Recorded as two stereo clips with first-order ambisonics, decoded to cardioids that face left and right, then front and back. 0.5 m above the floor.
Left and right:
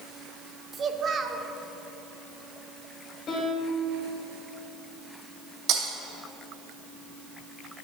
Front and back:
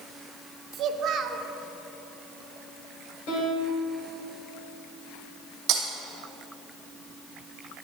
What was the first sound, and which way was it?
A child speaking, 145° right.